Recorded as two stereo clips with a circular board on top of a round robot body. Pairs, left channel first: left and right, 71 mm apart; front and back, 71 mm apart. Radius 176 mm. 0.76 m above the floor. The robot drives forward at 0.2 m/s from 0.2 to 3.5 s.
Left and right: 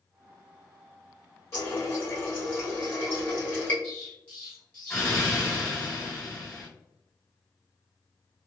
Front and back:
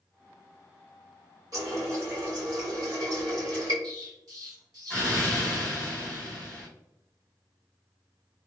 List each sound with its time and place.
1.5 s a running tap: 140° left, 1.5 m; by 3.7 s 150° left, 1.9 m
3.8 s an explosion: 160° left, 2.0 m